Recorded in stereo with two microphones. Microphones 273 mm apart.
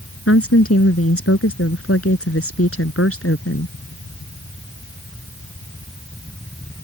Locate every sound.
0.3 s a woman speaking: 55° left (ahead or behind)